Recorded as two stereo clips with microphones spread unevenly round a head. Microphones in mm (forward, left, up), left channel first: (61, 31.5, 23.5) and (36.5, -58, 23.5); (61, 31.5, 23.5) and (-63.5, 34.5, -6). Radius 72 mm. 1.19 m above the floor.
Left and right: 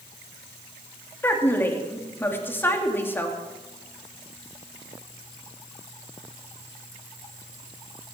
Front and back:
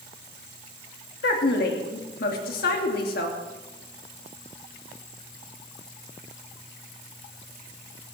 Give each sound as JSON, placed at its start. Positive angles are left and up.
{"t": 1.2, "sound": "a woman speaking", "azimuth_deg": 5, "distance_m": 3.0}